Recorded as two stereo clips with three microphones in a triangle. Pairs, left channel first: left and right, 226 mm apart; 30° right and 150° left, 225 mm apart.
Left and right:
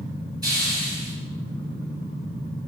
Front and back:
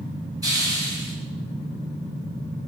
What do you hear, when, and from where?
0.4 s a hiss: 150° right, 1.3 m